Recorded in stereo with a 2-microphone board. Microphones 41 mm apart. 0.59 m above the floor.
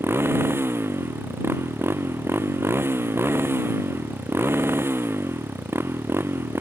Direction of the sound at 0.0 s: 80° right.